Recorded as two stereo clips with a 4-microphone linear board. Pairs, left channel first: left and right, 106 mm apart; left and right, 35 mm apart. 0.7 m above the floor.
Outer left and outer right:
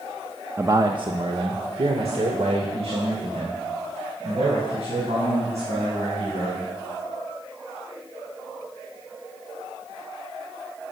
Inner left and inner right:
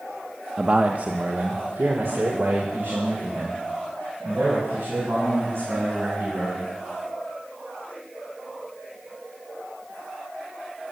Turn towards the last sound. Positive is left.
turn(degrees=-85)